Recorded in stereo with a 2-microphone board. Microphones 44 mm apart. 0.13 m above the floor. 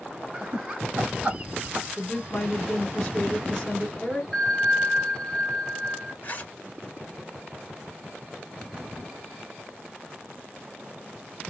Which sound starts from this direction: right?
Laughter, at 0.3 s.